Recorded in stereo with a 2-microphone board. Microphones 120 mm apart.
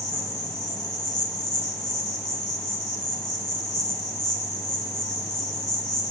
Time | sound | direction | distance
0.0 | an insect | 30° left (ahead or behind) | 0.9 m